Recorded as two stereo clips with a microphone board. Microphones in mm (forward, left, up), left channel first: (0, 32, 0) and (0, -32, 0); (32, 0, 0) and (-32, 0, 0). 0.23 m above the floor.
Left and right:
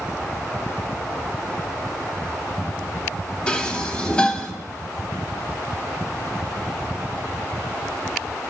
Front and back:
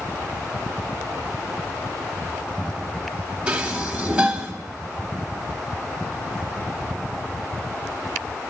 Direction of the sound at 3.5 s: 140° left.